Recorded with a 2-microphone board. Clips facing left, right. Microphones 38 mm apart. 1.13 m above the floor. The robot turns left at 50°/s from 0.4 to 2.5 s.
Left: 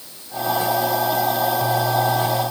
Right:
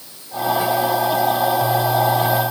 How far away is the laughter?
No laughter in this recording.